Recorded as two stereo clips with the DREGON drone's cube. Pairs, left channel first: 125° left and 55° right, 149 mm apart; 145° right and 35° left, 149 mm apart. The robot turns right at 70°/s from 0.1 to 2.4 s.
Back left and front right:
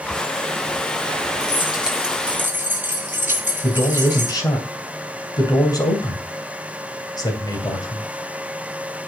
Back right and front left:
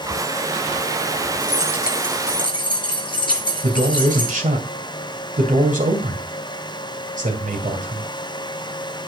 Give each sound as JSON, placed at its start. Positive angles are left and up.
{"t": 1.4, "sound": "keys jangling", "azimuth_deg": 85, "distance_m": 6.5}
{"t": 3.6, "sound": "a man speaking", "azimuth_deg": 60, "distance_m": 2.5}